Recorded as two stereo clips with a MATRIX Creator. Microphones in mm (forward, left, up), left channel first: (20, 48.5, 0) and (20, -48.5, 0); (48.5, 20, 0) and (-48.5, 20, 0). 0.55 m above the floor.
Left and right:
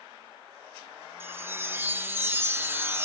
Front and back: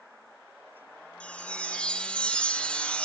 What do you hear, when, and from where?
1.2 s a chime: 65° right, 0.6 m